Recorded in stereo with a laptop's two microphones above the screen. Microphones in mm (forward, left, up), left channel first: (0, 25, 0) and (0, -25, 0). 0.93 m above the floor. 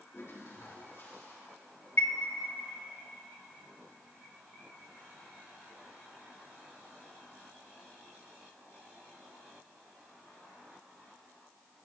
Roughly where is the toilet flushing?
Left.